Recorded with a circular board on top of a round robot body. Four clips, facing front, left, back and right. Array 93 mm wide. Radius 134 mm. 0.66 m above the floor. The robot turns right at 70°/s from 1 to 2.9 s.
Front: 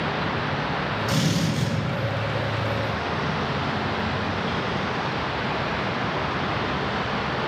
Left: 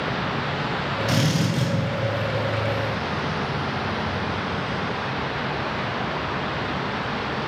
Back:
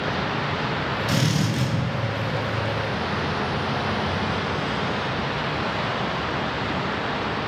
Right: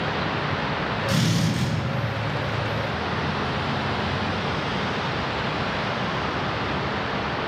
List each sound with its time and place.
1.1 s a drill: 115° left, 3.5 m; by 1.7 s 160° left, 3.5 m